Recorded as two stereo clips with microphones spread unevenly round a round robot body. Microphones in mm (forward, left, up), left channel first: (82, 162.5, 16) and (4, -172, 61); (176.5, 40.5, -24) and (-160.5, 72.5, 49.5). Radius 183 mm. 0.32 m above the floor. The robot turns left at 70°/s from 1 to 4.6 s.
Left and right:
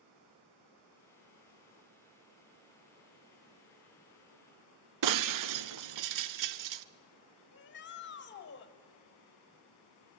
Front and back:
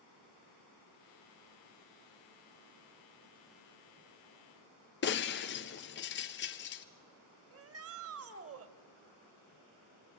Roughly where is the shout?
Behind left.